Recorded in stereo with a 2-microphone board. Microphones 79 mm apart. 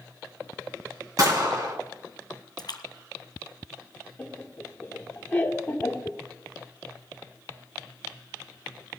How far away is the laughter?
About 1.2 m.